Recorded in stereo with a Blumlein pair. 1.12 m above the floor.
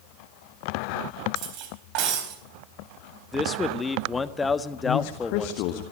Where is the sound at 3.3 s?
10° left, 1.4 m.